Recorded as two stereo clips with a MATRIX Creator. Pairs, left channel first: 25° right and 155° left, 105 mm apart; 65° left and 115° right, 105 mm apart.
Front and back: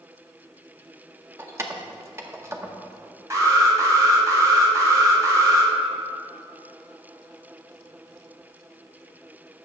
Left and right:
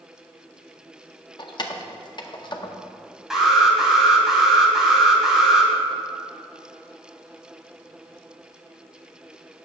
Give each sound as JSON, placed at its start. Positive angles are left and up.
{"t": 1.4, "sound": "keys jangling", "azimuth_deg": 100, "distance_m": 0.7}
{"t": 3.3, "sound": "an alarm", "azimuth_deg": 165, "distance_m": 1.7}